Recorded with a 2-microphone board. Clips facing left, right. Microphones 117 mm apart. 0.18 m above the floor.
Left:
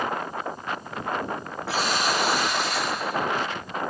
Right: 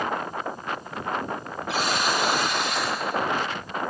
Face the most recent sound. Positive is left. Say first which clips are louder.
# even
turn(degrees=75)  # may be behind; listen again after turning